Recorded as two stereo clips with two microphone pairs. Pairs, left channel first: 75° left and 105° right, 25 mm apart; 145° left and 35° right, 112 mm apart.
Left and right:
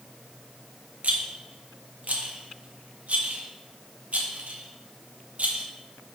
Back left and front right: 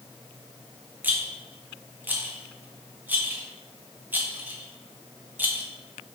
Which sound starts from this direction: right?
A rattle, at 1.0 s.